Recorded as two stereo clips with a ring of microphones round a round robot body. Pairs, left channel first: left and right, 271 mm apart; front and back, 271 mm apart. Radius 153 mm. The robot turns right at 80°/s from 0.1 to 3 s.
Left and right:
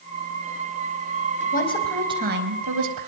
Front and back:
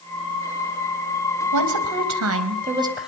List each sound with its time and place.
1.5 s a woman speaking: 150° left, 4 m; by 3.1 s 90° right, 4 m